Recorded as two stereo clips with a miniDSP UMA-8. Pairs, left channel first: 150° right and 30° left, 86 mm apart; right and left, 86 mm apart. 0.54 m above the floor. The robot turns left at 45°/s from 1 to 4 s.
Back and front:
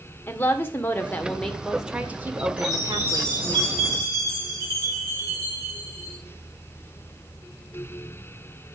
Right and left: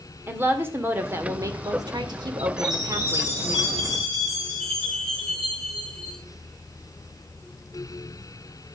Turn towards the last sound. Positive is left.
turn(degrees=-10)